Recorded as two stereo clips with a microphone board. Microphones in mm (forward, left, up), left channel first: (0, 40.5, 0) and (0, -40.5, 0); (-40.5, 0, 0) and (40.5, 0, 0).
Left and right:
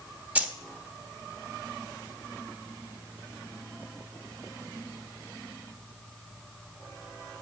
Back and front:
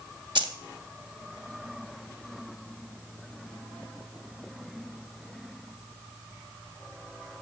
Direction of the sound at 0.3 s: 20° right.